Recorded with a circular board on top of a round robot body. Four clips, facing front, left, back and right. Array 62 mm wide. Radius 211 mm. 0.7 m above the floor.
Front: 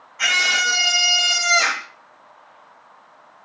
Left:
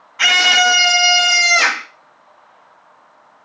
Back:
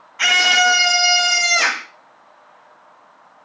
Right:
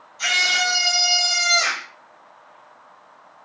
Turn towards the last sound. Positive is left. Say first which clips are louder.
# left 8 dB, back 4 dB
turn(degrees=110)